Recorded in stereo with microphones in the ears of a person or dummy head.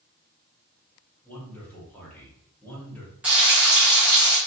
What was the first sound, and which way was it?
A man speaking, 10° left (ahead or behind).